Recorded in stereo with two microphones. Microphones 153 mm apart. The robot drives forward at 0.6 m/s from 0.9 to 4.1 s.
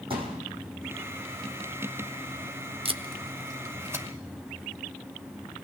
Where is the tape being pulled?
40° right (ahead or behind), 0.5 m; by 4.0 s 15° right (ahead or behind), 1.2 m.